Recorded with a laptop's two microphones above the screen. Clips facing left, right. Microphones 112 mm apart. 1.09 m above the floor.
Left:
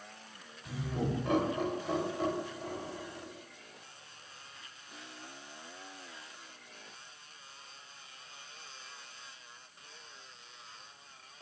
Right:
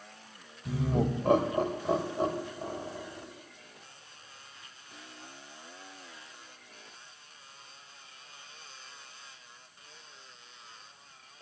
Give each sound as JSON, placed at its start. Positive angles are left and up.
{"t": 0.7, "sound": "laughter", "side_deg": -60, "distance_m": 1.4}